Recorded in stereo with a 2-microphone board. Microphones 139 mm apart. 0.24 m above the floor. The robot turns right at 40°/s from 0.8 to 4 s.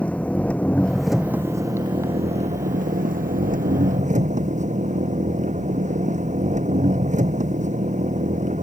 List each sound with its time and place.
0.0 s an engine running: 170° left; by 8.6 s 60° right